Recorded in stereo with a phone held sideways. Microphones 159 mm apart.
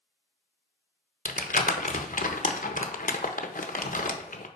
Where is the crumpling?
55° left (ahead or behind), 0.7 m.